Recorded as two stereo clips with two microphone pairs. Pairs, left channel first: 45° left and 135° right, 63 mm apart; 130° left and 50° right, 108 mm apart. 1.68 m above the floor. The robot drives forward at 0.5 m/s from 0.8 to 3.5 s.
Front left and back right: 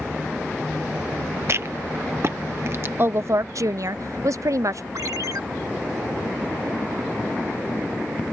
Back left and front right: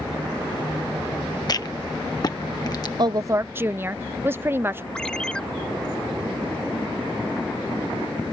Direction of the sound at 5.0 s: 145° right.